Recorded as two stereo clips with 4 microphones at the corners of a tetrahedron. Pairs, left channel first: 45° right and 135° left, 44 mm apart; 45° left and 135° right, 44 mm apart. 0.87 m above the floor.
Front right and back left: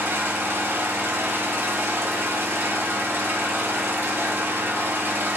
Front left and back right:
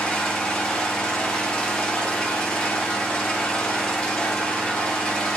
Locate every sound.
0.0 s an engine running: 120° left, 0.9 m